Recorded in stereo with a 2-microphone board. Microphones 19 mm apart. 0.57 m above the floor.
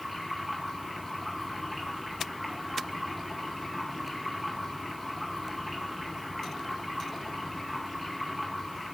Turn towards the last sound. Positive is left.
turn(degrees=5)  # may be behind; listen again after turning